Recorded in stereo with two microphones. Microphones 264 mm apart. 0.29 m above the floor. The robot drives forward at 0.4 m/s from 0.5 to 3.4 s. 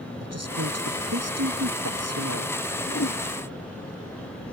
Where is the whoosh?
65° left (ahead or behind).